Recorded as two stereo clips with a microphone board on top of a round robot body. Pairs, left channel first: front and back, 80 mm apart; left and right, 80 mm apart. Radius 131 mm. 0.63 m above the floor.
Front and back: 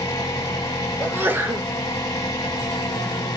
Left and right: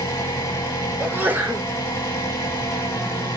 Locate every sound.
0.0 s an engine running: 35° left, 1.9 m
1.0 s a sneeze: 135° right, 0.9 m